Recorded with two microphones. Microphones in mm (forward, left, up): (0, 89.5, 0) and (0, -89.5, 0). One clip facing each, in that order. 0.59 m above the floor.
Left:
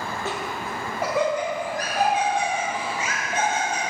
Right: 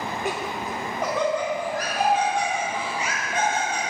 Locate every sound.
0.2 s laughter: 15° right (ahead or behind), 0.7 m; by 3.8 s 25° left (ahead or behind), 3 m